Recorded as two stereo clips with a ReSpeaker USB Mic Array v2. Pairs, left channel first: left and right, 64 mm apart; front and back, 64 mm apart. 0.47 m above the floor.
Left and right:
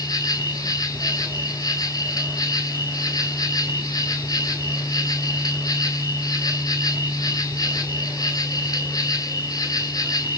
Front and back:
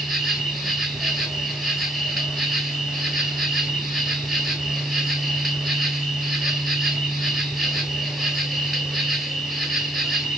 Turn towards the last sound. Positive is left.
turn(degrees=95)